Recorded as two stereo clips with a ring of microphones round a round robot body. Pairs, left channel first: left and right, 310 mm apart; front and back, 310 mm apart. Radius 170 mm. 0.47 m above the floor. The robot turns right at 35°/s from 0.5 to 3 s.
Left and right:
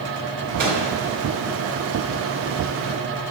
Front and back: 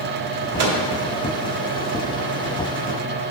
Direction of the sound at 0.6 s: 150° right.